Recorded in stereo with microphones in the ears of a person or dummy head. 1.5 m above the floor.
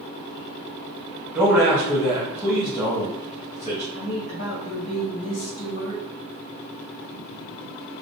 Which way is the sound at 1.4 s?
15° right (ahead or behind).